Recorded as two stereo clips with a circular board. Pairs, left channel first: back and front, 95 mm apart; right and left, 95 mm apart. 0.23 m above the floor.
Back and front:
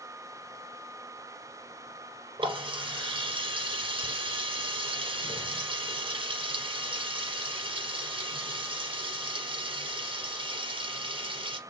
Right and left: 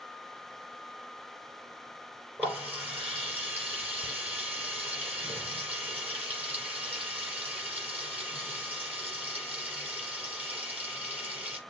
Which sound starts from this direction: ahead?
A running tap, at 2.4 s.